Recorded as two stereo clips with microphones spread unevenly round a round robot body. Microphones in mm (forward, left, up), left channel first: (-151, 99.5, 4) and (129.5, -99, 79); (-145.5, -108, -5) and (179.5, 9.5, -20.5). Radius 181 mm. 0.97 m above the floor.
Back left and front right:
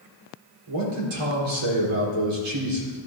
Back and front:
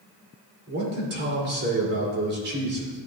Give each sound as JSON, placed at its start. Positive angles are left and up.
{"t": 0.7, "sound": "a man speaking", "azimuth_deg": -40, "distance_m": 3.0}